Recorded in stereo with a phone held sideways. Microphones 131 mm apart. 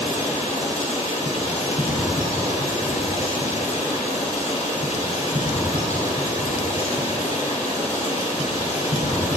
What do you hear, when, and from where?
0.0 s running water: 65° left (ahead or behind), 3.5 m